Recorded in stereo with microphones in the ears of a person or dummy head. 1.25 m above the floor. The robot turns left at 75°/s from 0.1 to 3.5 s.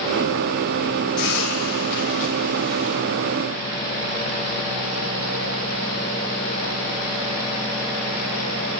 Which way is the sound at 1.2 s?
120° left.